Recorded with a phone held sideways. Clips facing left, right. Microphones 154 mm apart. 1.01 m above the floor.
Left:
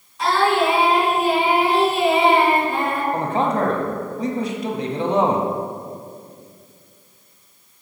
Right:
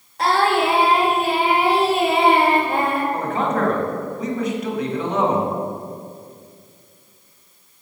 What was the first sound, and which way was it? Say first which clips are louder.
Singing: even; 60° right (ahead or behind).